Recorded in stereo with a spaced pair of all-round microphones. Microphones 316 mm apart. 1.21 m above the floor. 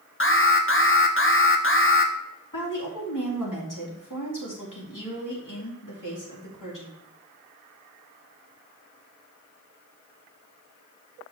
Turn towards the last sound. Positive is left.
turn(degrees=75)  # may be behind; listen again after turning